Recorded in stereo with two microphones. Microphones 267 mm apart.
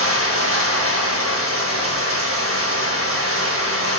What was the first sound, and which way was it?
Running water, 55° right (ahead or behind).